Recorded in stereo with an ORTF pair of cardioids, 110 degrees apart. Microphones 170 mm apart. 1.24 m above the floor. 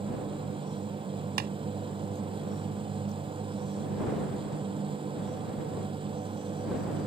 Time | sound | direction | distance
0.0 | a machine running | 30° right | ?
1.4 | tapping | 70° right | ?